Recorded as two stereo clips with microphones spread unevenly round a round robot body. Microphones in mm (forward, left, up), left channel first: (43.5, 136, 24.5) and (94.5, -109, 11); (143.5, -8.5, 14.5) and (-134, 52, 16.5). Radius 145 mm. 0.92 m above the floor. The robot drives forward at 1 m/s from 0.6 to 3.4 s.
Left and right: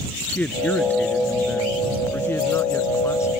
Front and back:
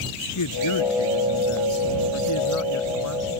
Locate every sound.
0.3 s a man speaking: 20° left; by 3.3 s 25° left